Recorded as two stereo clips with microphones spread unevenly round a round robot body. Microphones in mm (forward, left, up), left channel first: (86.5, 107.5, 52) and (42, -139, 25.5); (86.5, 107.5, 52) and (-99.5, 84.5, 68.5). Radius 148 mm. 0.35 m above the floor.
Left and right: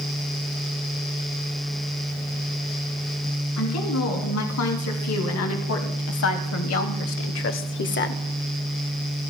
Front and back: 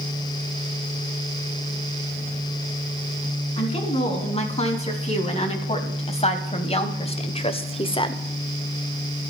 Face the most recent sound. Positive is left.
turn(degrees=45)